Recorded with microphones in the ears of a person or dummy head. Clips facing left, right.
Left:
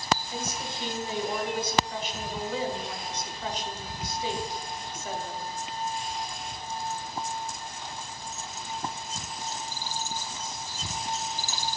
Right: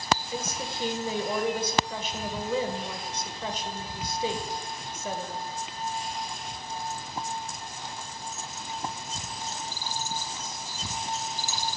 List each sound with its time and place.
0.3 s a woman speaking: 65° right (ahead or behind), 1.5 m